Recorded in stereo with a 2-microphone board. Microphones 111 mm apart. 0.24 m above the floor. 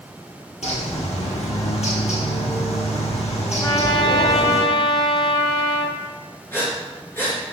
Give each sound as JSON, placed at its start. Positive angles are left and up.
{"t": 0.6, "sound": "a bird", "side_deg": 80, "distance_m": 1.9}
{"t": 3.6, "sound": "a trumpet", "side_deg": 40, "distance_m": 0.9}
{"t": 6.5, "sound": "breathing", "side_deg": 20, "distance_m": 3.0}